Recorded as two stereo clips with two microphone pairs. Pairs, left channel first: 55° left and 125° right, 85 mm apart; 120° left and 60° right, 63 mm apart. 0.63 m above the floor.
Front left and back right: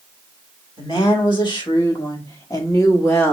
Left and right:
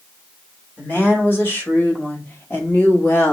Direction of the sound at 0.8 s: 65° left.